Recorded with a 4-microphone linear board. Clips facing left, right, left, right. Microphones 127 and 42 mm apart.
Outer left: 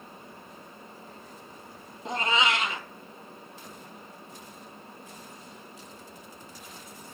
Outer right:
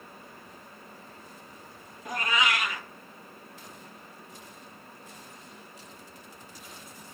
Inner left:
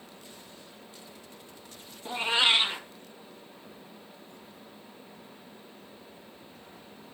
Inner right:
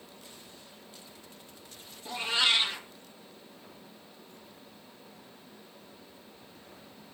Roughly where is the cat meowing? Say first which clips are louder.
Outer left 2 dB, inner left 3 dB; left.